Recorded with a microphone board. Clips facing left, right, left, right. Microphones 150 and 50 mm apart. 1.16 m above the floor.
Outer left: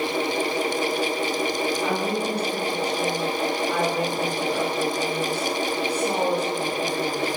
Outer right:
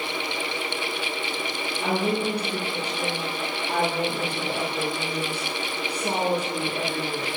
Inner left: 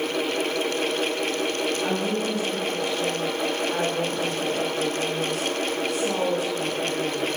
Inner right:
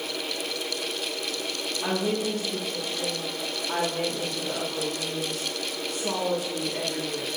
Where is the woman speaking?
60° right (ahead or behind), 3 m.